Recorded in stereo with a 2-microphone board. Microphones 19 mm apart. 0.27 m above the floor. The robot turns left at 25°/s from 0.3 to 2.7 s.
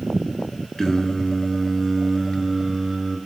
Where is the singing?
30° left, 0.6 m; by 3.2 s 15° right, 0.6 m.